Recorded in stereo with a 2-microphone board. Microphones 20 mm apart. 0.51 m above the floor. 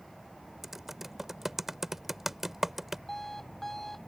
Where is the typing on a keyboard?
15° right (ahead or behind).